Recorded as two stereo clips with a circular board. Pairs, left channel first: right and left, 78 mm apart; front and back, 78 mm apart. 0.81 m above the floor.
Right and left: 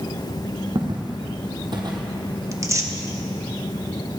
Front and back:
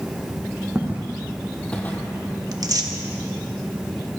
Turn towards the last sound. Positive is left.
turn(degrees=145)